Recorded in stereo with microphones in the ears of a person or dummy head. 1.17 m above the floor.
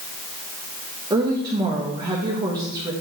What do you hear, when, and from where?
1.1 s a woman speaking: 25° right (ahead or behind), 0.9 m